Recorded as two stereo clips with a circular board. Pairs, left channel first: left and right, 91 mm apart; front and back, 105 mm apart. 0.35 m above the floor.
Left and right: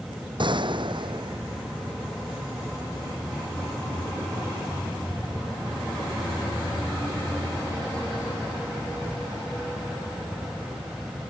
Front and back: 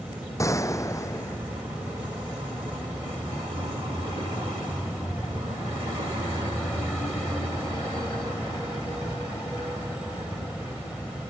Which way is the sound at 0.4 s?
60° right.